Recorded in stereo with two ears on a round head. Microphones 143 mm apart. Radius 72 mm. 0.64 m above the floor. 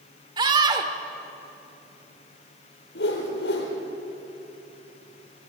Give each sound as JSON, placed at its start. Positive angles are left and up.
{"t": 0.4, "sound": "a scream", "side_deg": -25, "distance_m": 1.7}
{"t": 3.0, "sound": "a whoosh", "side_deg": 75, "distance_m": 4.5}